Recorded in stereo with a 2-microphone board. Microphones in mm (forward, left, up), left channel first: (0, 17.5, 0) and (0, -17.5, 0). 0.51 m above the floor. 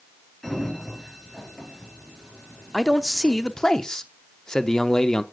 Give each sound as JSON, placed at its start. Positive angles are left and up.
{"t": 0.4, "sound": "a sliding door", "side_deg": 10, "distance_m": 3.5}
{"t": 2.7, "sound": "a man speaking", "side_deg": 15, "distance_m": 0.7}